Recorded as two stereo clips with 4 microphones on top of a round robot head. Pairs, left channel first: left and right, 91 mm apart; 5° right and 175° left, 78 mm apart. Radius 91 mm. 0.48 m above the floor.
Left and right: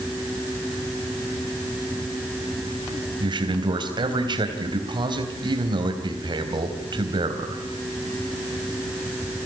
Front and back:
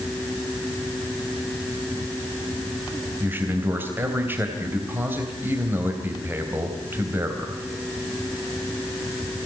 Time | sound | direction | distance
3.2 | a man speaking | 120° right | 3.5 m